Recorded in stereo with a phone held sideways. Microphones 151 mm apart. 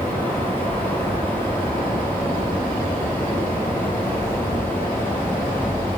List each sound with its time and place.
0.0 s a fan: 15° left (ahead or behind), 1.9 m